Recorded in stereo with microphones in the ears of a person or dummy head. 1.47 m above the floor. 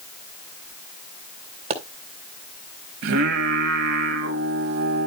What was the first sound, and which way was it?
A pop, 35° right (ahead or behind).